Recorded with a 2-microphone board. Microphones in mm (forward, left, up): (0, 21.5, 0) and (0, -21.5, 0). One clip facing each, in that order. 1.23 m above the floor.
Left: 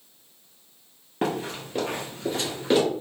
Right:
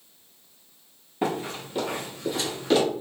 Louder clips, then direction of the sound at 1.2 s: Even; 55° left (ahead or behind).